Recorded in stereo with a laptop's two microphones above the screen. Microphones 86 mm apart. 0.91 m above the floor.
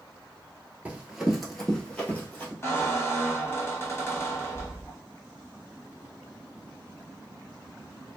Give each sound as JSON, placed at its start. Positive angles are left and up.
{"t": 0.8, "sound": "running footsteps", "side_deg": -20, "distance_m": 0.9}
{"t": 2.6, "sound": "a squeak", "side_deg": 30, "distance_m": 0.8}